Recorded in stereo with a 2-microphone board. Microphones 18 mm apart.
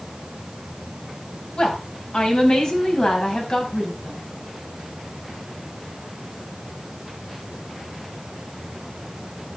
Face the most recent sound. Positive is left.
turn(degrees=40)  # may be behind; listen again after turning